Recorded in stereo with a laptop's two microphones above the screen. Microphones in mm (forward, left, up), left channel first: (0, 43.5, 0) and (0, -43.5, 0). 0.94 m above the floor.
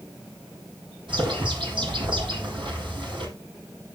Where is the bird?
75° right (ahead or behind), 6.5 m.